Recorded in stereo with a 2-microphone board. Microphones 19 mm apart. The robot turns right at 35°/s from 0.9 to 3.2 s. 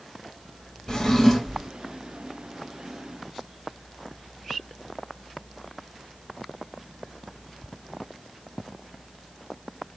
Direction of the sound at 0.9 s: 30° left (ahead or behind).